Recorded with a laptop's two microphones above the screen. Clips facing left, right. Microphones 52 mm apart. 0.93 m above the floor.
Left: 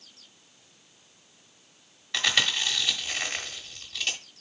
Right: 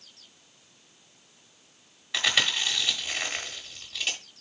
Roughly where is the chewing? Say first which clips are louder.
Even; centre.